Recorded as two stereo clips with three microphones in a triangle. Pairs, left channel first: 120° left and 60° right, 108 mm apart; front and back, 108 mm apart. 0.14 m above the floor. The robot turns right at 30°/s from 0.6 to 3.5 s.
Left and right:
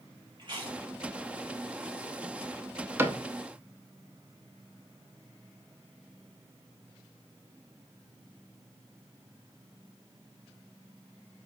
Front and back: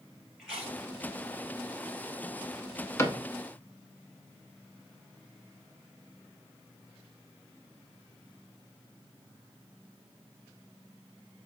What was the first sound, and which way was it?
Chewing, 95° right.